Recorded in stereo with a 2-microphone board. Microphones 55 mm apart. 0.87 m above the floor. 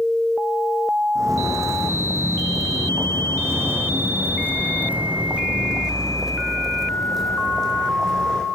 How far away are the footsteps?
About 4 m.